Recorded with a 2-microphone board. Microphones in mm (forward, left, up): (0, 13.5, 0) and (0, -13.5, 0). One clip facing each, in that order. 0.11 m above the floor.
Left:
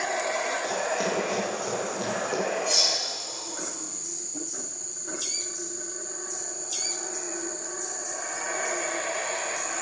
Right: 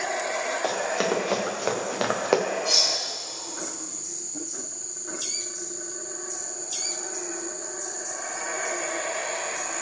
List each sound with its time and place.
0.6 s running footsteps: 35° right (ahead or behind), 3 m; by 2.4 s 65° right (ahead or behind), 1.8 m
2.6 s cutlery clinking: 40° right (ahead or behind), 3 m